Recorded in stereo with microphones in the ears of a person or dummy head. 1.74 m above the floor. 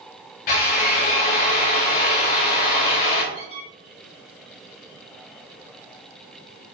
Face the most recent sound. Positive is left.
turn(degrees=20)  # may be behind; listen again after turning